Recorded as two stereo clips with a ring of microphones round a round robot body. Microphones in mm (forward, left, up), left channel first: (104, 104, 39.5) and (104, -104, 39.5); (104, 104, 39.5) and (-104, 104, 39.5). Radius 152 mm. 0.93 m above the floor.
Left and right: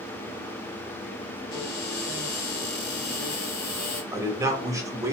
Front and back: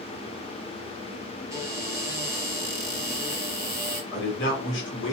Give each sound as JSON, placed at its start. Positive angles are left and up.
{"t": 1.5, "sound": "a cupboard door", "azimuth_deg": 105, "distance_m": 1.3}
{"t": 4.1, "sound": "a man speaking", "azimuth_deg": -15, "distance_m": 0.9}